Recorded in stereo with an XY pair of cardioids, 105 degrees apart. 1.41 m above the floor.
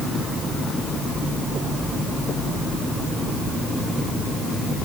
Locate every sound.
Only background noise.